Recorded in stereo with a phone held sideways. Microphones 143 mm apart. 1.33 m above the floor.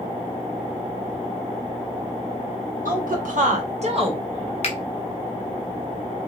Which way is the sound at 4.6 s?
45° left (ahead or behind).